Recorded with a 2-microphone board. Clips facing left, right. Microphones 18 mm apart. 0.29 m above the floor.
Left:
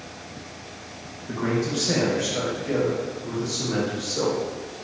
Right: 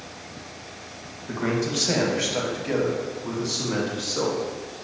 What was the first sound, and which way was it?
A man speaking, 30° right (ahead or behind).